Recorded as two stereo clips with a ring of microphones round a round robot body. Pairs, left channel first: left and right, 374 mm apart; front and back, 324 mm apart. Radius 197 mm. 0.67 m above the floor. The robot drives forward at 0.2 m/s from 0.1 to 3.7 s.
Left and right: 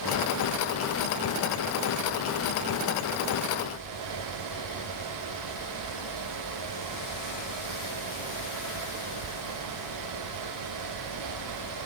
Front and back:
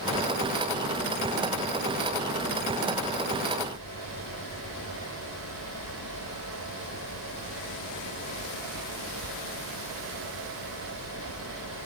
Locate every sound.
Only background noise.